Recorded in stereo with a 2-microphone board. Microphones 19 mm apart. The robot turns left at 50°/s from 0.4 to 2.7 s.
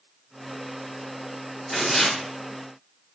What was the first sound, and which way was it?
Tearing paper, centre (ahead or behind).